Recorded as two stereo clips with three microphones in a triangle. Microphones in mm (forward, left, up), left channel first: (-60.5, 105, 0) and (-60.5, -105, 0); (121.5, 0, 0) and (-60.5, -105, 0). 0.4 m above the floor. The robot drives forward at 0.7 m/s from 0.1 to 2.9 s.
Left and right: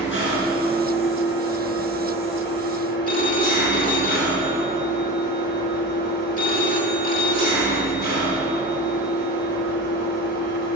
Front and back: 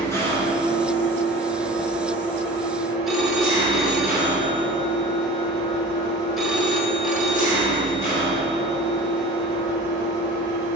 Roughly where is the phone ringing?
Behind left.